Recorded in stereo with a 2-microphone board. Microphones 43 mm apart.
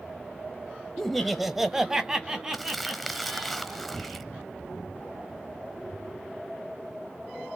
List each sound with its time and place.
1.0 s laughter: 5° left (ahead or behind), 1.0 m; by 3.5 s 15° right (ahead or behind), 3 m
2.5 s crumpling: centre (ahead or behind), 1.1 m